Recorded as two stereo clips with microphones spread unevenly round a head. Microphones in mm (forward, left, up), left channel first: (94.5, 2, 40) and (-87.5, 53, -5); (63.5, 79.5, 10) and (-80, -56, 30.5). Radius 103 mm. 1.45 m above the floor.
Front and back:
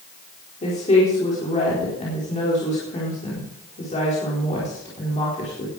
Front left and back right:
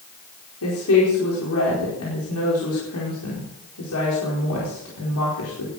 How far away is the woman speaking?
About 4.5 m.